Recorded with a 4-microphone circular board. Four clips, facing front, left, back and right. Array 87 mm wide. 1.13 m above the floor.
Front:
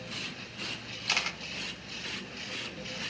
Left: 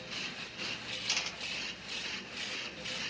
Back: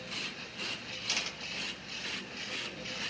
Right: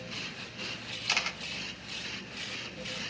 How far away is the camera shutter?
About 1.4 m.